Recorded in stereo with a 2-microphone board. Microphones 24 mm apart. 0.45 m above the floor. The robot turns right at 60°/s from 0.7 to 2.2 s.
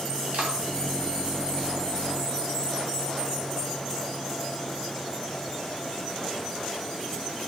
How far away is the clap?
About 2.5 m.